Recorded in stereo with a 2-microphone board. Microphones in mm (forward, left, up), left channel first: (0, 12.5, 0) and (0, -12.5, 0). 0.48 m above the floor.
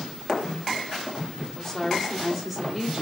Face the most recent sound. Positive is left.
turn(degrees=-15)  # may be behind; listen again after turning